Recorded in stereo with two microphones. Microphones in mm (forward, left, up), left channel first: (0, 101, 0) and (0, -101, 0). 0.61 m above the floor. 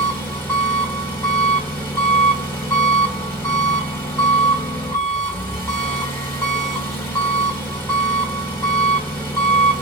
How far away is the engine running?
About 1.1 m.